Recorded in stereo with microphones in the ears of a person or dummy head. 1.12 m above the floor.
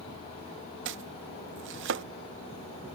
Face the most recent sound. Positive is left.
turn(degrees=-60)  # may be behind; listen again after turning